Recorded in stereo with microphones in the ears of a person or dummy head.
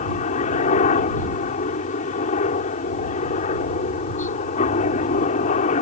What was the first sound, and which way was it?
A helicopter, 40° left (ahead or behind).